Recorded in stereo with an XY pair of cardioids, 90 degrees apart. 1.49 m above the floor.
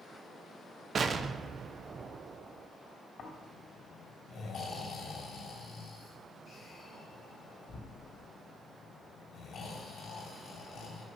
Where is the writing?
I don't hear writing.